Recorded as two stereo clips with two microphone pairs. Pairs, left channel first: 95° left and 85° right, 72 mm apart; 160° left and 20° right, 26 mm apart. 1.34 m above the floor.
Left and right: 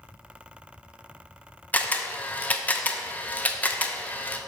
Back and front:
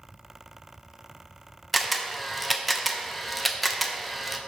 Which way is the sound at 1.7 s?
65° left.